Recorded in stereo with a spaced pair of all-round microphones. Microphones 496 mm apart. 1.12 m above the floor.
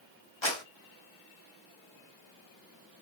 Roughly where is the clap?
Left.